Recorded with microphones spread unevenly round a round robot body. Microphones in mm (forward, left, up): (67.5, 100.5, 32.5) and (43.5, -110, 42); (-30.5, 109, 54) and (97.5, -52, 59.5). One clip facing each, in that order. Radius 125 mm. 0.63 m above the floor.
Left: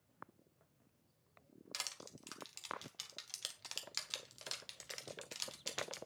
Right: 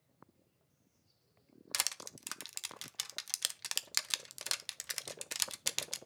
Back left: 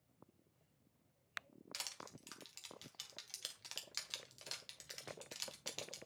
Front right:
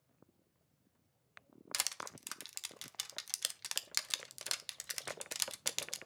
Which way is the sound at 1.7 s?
75° right.